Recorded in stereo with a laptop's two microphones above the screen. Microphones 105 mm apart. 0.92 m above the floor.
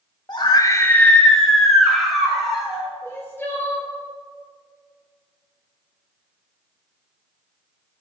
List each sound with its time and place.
0.3 s a scream: 40° left (ahead or behind), 0.6 m; by 2.9 s 5° right (ahead or behind), 3 m
3.0 s crying: 20° left (ahead or behind), 1.0 m